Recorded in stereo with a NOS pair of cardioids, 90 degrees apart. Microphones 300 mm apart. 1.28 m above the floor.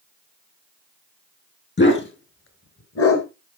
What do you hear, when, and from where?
1.8 s a dog barking: 40° left, 4.5 m; by 3.3 s 55° left, 4.5 m